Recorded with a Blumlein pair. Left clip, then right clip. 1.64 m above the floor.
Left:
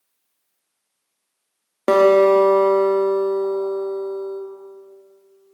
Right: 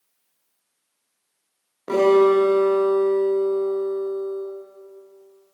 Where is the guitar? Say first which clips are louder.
Left 3 dB; 45° left, 1.1 m.